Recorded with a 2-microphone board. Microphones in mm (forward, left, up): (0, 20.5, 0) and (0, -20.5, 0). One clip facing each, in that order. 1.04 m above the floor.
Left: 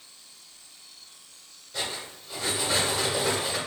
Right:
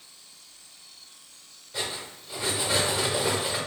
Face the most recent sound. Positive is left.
turn(degrees=-15)  # may be behind; listen again after turning